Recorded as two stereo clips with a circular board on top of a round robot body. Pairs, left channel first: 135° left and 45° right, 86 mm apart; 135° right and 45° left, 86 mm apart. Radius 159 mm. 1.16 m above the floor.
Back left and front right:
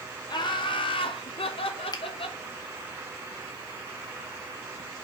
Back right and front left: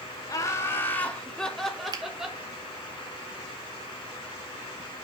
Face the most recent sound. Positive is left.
turn(degrees=90)